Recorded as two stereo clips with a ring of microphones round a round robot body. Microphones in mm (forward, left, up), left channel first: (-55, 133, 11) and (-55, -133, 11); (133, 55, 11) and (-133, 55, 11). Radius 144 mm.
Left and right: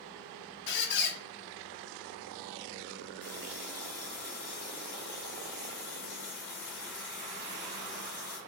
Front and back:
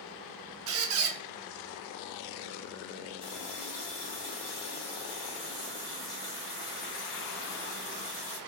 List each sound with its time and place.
0.7 s a squeak: 140° left, 0.6 m
3.2 s a running tap: 40° left, 1.5 m